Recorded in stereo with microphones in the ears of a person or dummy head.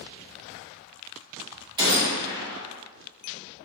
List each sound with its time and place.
1.8 s a gunshot: 20° right (ahead or behind), 1.0 m